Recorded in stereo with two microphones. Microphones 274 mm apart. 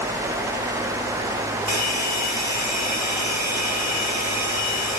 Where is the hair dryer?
85° left, 3 m.